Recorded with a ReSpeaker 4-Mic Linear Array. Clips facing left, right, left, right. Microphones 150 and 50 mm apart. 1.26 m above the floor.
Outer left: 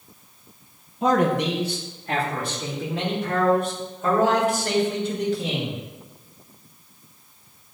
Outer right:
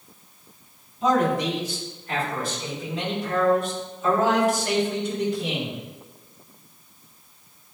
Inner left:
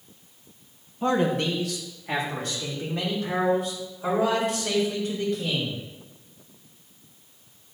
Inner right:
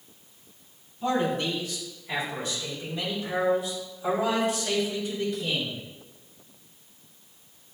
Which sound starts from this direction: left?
A man speaking, at 1.0 s.